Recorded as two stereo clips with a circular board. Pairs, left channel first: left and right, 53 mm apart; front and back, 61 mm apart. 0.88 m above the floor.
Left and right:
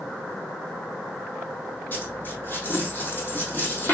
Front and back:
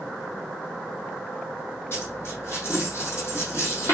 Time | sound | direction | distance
1.9 | a dropped coin | 45° left | 2.5 m